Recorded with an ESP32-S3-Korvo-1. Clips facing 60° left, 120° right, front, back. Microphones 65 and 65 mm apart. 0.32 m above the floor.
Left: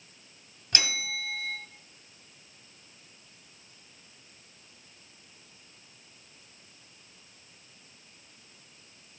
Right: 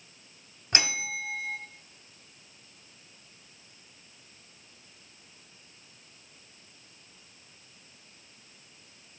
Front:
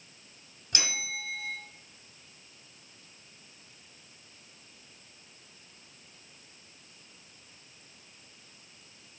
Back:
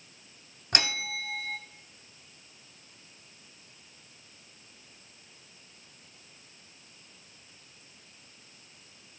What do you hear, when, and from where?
0.7 s a bell: straight behind, 1.0 m